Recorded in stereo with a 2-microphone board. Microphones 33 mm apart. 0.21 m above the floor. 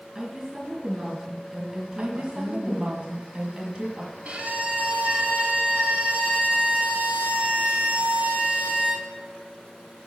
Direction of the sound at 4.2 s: 45° right (ahead or behind).